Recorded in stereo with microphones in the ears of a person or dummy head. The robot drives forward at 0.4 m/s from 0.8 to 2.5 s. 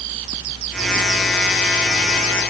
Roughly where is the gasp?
I don't hear a gasp.